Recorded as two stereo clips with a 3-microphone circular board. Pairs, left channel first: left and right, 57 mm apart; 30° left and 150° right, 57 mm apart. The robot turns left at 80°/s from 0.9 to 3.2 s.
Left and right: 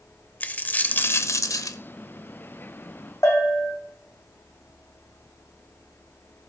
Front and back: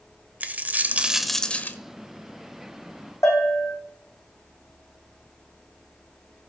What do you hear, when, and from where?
0.4 s a dropped coin: 150° left, 0.9 m; by 1.8 s 80° left, 0.9 m
3.2 s a bell: 55° left, 4.5 m